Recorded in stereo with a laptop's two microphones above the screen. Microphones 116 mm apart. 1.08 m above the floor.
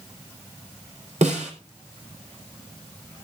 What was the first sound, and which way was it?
A snare drum, 85° right.